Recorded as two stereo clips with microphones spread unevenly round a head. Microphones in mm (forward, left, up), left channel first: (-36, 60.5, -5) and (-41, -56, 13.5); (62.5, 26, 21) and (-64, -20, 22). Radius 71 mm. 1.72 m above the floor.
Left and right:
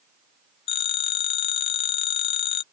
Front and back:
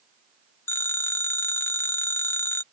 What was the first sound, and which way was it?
A phone ringing, 85° left.